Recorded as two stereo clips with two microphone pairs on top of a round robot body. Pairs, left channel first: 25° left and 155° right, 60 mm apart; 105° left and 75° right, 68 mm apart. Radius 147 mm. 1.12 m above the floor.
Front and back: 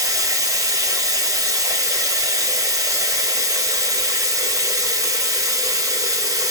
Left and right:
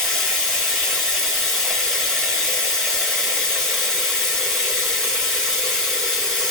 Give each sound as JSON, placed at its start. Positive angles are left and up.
{"t": 0.0, "sound": "running water", "azimuth_deg": -175, "distance_m": 3.0}